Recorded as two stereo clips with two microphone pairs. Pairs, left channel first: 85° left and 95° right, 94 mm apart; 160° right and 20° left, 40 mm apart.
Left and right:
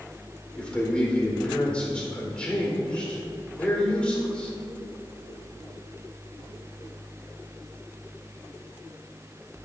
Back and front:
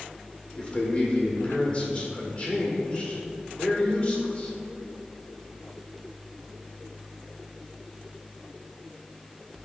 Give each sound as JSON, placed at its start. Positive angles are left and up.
{"t": 0.6, "sound": "a man speaking", "azimuth_deg": 150, "distance_m": 1.5}